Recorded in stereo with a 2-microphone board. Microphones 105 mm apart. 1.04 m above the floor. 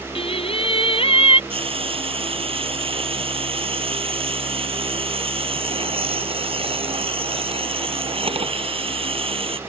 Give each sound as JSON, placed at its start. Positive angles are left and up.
{"t": 0.1, "sound": "singing", "side_deg": 65}
{"t": 1.5, "sound": "frying", "side_deg": -65}